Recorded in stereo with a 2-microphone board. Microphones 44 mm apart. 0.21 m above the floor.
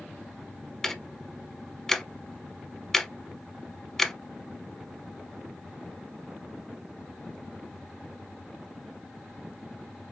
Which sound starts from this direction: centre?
Ticking, at 0.8 s.